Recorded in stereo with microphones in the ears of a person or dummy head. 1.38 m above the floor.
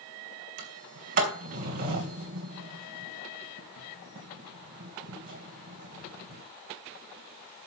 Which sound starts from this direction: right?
A sliding door, at 0.6 s.